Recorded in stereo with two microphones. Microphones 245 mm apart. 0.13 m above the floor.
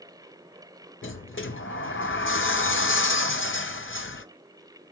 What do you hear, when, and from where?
1.0 s a sliding door: 55° left (ahead or behind), 0.5 m